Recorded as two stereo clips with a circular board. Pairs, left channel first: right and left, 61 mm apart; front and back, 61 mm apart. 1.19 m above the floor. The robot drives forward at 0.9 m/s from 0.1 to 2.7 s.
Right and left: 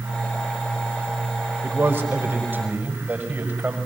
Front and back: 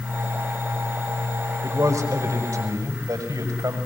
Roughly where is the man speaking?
Behind left.